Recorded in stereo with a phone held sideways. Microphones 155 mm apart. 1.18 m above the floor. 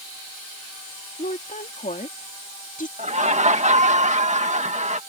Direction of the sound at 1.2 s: 60° left (ahead or behind).